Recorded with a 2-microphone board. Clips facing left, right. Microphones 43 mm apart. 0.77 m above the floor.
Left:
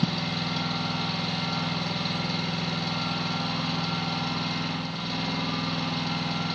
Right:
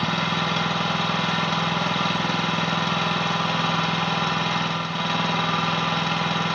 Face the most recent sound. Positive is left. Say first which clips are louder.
# right 6 dB
turn(degrees=-60)  # may be behind; listen again after turning